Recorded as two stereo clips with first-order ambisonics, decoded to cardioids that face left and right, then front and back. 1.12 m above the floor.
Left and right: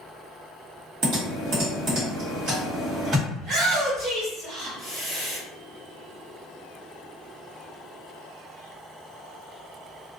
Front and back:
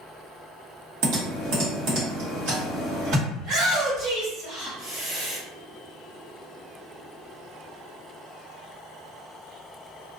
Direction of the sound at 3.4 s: 150° right.